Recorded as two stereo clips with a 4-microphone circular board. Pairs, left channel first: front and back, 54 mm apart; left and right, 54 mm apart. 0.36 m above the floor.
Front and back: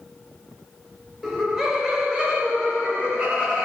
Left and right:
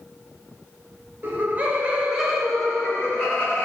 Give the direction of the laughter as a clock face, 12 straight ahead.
3 o'clock.